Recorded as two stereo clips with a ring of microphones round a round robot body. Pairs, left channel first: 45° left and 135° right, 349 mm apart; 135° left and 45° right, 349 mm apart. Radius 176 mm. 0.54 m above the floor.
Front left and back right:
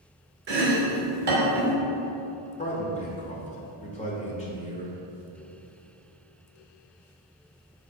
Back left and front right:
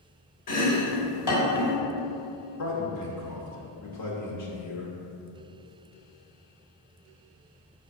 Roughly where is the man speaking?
Left.